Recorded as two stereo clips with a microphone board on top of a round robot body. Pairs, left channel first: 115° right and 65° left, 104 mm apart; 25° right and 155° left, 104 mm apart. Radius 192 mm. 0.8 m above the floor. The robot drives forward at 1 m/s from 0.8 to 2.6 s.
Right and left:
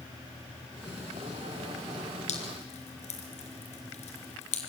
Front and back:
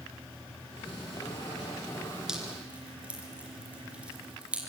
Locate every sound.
2.3 s dripping: 120° right, 3 m; by 4.7 s 125° right, 3 m